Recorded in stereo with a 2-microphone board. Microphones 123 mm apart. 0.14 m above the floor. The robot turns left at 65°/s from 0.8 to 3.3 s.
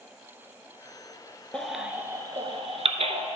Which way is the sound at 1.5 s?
10° left (ahead or behind).